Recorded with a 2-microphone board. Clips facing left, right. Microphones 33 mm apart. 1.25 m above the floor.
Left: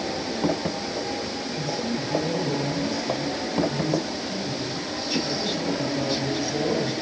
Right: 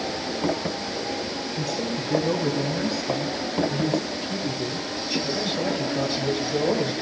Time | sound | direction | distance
1.6 | a man speaking | 60° right (ahead or behind) | 8 m